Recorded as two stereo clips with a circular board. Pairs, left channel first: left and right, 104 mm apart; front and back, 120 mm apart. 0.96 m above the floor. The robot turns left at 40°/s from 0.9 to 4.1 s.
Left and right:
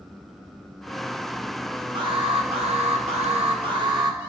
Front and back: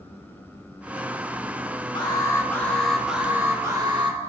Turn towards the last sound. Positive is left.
turn(degrees=-135)